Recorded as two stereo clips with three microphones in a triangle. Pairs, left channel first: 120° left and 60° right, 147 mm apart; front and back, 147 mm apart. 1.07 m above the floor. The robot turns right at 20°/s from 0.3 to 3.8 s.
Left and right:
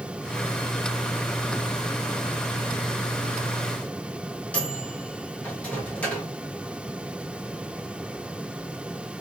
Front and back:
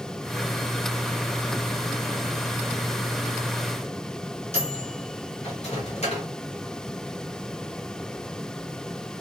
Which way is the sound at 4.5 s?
40° left.